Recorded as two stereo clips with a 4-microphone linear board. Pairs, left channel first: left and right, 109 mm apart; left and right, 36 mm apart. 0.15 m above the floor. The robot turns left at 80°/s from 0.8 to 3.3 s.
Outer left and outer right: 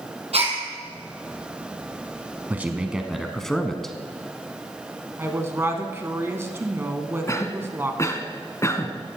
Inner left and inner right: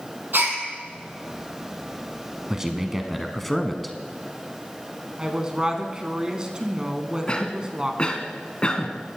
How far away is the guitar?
I don't hear a guitar.